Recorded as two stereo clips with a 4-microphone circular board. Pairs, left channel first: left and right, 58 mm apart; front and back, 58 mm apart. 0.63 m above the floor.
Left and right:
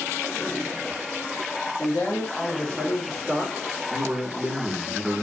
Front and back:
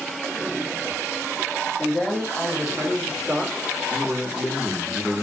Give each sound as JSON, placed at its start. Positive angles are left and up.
{"t": 1.8, "sound": "a man speaking", "azimuth_deg": 60, "distance_m": 1.3}
{"t": 3.9, "sound": "a man speaking", "azimuth_deg": -80, "distance_m": 0.8}